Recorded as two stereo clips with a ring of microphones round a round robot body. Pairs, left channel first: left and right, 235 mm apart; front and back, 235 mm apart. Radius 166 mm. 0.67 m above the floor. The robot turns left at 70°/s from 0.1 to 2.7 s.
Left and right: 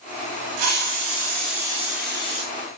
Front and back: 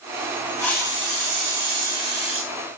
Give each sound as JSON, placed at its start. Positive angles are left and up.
{"t": 0.6, "sound": "a hiss", "azimuth_deg": -80, "distance_m": 3.5}